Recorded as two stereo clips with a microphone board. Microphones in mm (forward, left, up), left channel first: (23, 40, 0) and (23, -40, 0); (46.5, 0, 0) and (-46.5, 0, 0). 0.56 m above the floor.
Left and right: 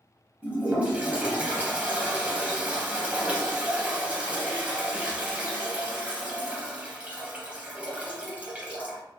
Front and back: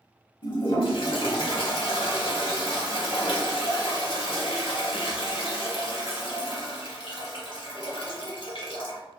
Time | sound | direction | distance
0.4 | a toilet flushing | 15° right | 0.9 m